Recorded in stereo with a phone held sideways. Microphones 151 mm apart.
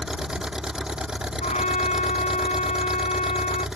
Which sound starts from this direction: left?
A trumpet, at 1.4 s.